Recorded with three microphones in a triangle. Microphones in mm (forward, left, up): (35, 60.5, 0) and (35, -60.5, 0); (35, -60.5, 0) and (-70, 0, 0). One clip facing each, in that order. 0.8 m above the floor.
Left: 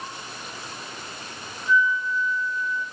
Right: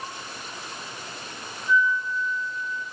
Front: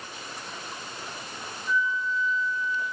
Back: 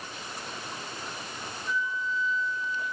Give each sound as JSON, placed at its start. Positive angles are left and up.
{"t": 1.7, "sound": "a flute", "azimuth_deg": -125, "distance_m": 3.5}